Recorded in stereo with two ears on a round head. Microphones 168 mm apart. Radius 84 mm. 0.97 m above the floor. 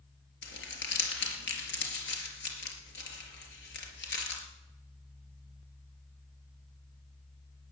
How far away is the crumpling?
About 4 m.